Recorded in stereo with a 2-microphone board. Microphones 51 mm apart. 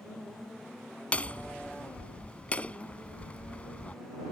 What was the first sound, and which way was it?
Hammering, 30° left (ahead or behind).